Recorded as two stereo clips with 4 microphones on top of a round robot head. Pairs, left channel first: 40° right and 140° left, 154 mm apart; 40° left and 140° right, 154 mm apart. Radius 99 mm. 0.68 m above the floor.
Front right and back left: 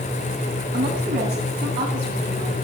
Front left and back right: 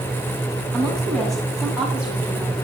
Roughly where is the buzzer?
I don't hear a buzzer.